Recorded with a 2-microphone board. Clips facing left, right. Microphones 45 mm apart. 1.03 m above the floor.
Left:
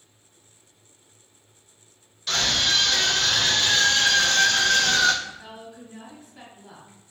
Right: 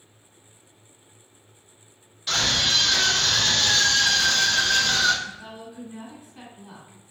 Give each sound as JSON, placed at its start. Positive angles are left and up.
{"t": 2.3, "sound": "a scream", "side_deg": -10, "distance_m": 1.7}
{"t": 5.2, "sound": "a woman speaking", "side_deg": -5, "distance_m": 1.4}